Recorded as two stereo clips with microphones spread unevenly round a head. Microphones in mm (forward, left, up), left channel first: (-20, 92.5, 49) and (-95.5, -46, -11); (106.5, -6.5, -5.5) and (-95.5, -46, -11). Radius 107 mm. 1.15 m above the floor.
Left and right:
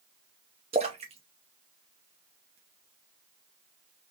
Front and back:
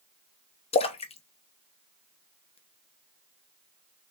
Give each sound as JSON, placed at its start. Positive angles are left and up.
{"t": 0.7, "sound": "a splash", "azimuth_deg": -45, "distance_m": 0.7}